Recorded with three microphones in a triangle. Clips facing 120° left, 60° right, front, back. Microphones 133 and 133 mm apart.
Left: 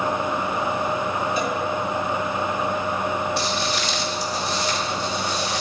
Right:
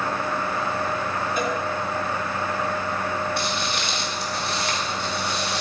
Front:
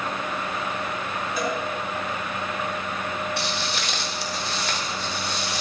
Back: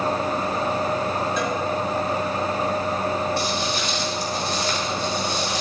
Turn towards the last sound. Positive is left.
turn(degrees=-35)